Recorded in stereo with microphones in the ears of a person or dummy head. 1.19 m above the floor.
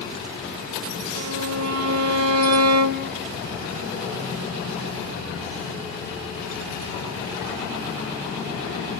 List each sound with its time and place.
1.1 s a violin: 80° right, 1.3 m